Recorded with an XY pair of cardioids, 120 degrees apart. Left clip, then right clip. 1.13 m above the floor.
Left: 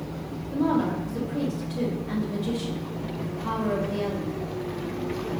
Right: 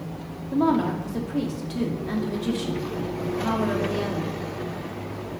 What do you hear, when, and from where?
0.5 s a woman speaking: 50° right, 2.5 m